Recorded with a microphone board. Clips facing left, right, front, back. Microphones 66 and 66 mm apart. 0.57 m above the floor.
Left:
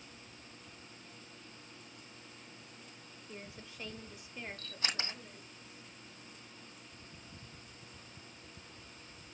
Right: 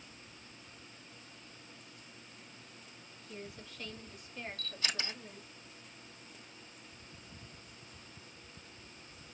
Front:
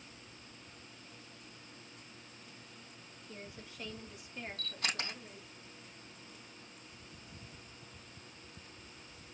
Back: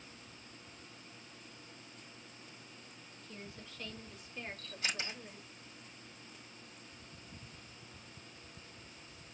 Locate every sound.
3.2 s a woman speaking: 50° left, 1.4 m; by 5.5 s 135° right, 1.2 m
4.6 s a camera shutter: 30° left, 3.5 m